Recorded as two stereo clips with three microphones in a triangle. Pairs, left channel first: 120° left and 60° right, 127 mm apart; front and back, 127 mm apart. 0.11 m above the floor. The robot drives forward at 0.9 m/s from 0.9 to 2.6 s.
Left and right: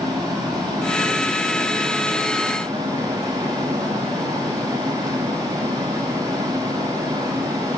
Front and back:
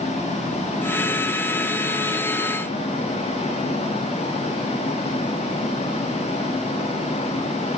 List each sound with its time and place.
0.0 s running water: straight ahead, 8 m